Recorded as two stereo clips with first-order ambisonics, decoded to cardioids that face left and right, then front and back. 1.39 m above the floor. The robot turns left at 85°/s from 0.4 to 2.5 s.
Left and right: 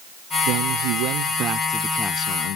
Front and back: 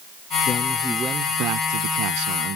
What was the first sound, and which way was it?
A man speaking, 60° right.